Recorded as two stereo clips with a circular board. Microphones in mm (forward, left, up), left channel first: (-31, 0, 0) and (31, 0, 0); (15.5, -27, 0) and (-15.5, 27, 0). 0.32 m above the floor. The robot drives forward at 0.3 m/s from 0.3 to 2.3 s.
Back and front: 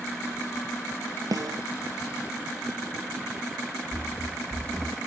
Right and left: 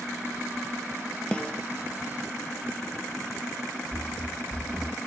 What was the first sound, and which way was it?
A snare drum, 15° left.